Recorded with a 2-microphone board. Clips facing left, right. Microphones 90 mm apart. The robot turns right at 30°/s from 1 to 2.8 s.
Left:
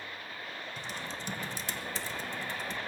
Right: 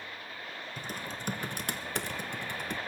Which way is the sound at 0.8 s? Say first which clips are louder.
Right 2 dB; 45° right (ahead or behind).